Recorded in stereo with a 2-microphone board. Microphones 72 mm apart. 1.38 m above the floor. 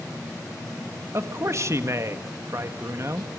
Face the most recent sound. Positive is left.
turn(degrees=-40)  # may be behind; listen again after turning